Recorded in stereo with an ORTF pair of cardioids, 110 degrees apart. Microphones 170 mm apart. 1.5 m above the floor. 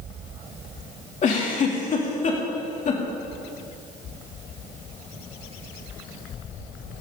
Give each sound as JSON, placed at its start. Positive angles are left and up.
{"t": 1.2, "sound": "a giggle", "azimuth_deg": 45, "distance_m": 2.5}